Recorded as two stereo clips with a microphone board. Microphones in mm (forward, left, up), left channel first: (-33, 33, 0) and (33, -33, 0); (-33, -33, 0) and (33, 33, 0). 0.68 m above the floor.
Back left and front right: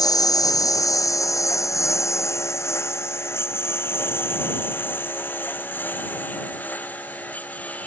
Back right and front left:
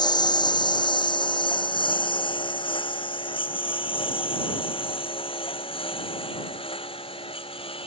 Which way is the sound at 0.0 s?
175° right.